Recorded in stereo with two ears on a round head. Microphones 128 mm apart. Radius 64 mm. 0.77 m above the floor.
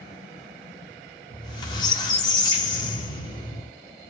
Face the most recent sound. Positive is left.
turn(degrees=30)  # may be behind; listen again after turning